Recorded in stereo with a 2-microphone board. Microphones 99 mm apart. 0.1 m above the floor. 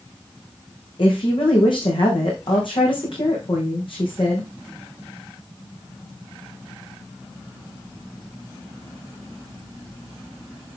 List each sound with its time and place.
1.0 s a woman speaking: 55° left (ahead or behind), 5.5 m